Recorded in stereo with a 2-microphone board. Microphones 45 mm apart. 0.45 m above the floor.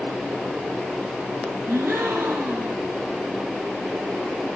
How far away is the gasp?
About 3 m.